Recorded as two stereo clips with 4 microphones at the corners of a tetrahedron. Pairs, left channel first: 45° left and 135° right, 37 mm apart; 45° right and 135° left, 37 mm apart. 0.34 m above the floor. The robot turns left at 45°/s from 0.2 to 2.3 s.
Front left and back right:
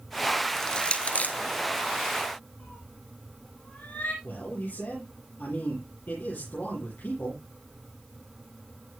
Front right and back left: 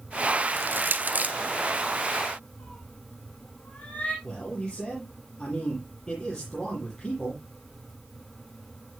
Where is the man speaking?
25° left, 8 m.